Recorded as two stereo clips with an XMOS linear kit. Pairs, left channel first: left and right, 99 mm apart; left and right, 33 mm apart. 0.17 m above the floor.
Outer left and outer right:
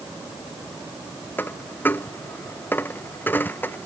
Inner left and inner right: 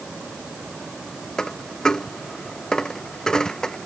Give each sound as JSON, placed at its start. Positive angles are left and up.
{"t": 1.4, "sound": "a dropped coin", "side_deg": 20}